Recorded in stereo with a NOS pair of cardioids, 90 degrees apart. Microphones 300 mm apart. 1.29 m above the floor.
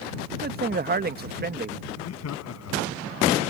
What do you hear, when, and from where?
0.3 s a man speaking: 30° right
1.9 s laughter: 55° left